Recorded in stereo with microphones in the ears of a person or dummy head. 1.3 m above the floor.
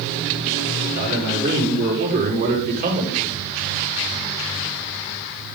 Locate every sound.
0.9 s a man speaking: 65° right (ahead or behind), 4.5 m; by 3.3 s 50° right (ahead or behind), 4.5 m